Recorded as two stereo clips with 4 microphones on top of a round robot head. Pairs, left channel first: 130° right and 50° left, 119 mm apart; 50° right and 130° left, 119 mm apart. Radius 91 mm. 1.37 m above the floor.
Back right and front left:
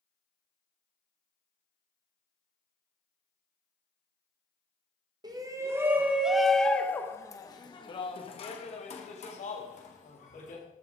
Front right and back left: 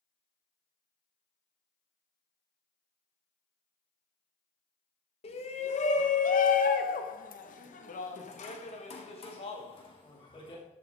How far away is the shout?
About 1.6 m.